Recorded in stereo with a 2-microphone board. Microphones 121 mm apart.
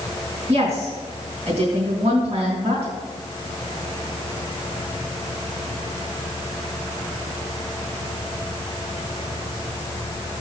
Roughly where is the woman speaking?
Right.